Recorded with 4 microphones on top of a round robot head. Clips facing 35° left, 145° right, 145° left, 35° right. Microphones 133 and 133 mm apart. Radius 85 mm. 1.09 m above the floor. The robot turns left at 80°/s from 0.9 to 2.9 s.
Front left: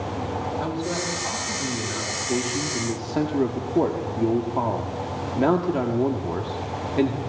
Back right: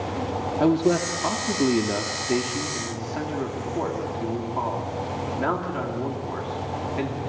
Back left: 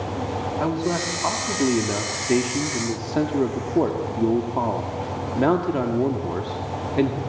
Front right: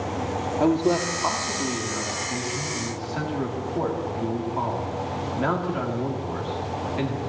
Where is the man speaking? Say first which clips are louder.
Back right 7 dB, front right 5 dB; 105° right, 2 m; by 7.2 s 95° left, 2 m.